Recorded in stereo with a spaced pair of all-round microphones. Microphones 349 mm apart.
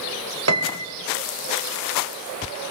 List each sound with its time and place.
0.5 s a piano: 45° right (ahead or behind), 1.8 m